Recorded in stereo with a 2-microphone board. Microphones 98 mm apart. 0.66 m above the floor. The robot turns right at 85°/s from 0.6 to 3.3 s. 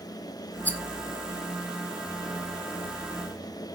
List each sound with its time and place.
0.7 s a rattle: 20° left (ahead or behind), 1.0 m; by 0.8 s 10° left (ahead or behind), 1.0 m